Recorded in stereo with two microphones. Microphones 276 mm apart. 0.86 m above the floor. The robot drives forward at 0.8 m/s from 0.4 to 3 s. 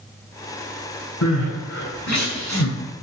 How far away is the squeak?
No squeak in this recording.